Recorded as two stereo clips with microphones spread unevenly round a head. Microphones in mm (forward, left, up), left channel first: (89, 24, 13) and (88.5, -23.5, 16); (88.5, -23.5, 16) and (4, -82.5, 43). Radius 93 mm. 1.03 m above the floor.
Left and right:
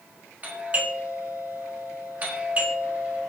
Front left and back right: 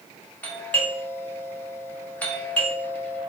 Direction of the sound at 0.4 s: 35° right.